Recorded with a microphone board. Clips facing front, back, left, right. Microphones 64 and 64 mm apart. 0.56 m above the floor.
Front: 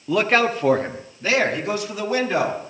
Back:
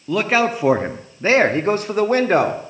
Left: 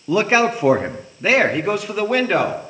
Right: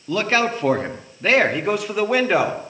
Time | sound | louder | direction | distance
0.1 | a man speaking | back 1 dB, left 4 dB | 80° left | 0.9 m